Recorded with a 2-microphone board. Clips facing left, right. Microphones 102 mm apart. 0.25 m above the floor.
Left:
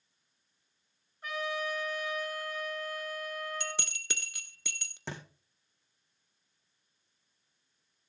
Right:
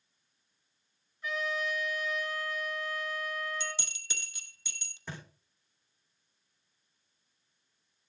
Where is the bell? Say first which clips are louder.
Even; 75° left (ahead or behind), 1.0 m.